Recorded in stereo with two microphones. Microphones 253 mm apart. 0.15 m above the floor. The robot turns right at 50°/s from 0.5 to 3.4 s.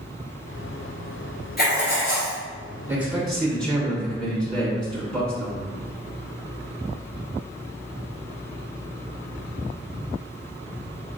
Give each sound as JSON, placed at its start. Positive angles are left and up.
{"t": 1.6, "sound": "writing", "azimuth_deg": 45, "distance_m": 1.5}
{"t": 2.9, "sound": "a man speaking", "side_deg": -10, "distance_m": 1.4}